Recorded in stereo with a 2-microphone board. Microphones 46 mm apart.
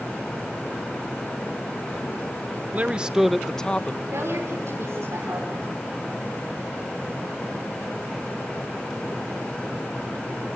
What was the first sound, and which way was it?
A man speaking, 35° right (ahead or behind).